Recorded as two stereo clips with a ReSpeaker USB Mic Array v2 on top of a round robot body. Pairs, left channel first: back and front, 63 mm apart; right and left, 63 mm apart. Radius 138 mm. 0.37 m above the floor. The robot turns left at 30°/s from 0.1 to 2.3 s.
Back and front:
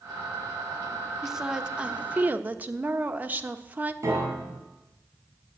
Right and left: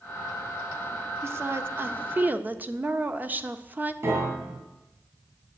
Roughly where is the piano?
Ahead left.